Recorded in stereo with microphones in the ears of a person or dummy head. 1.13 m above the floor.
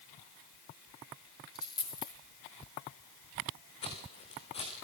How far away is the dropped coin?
About 5.5 m.